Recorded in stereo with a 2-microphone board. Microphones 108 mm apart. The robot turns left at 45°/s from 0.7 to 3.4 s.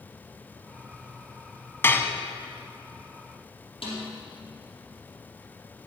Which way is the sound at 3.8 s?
65° left (ahead or behind).